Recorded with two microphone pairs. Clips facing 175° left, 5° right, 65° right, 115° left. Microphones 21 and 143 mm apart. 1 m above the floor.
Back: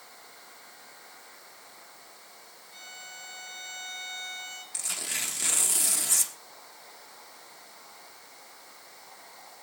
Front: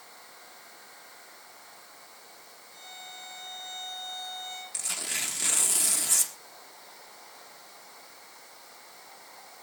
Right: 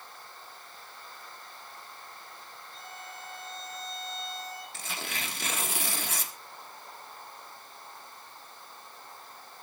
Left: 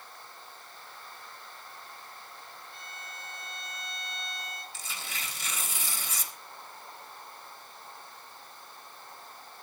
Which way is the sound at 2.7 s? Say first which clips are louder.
Even, right 2 dB; 115° left.